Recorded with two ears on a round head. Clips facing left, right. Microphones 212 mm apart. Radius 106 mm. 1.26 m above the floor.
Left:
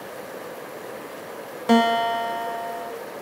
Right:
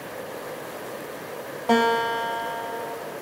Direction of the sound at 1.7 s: 25° left (ahead or behind).